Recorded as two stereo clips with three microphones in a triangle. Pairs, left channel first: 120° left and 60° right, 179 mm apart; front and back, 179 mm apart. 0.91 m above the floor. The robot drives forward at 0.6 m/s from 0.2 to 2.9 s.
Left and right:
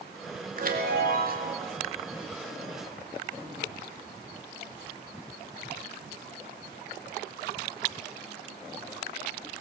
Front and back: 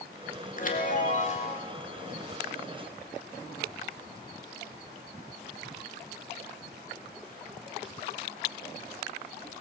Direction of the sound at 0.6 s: 30° right.